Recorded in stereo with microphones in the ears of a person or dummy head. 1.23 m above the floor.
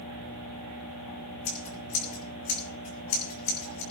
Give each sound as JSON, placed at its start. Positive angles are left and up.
{"t": 1.4, "sound": "scissors", "side_deg": 50, "distance_m": 6.5}